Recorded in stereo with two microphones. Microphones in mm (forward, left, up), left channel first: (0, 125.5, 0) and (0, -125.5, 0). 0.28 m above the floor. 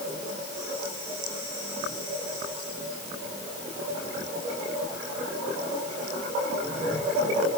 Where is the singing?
I don't hear singing.